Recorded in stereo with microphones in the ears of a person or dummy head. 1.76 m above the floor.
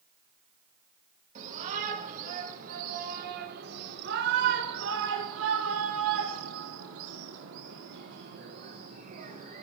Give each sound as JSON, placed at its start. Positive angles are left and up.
{"t": 1.4, "sound": "a shout", "side_deg": -40, "distance_m": 5.5}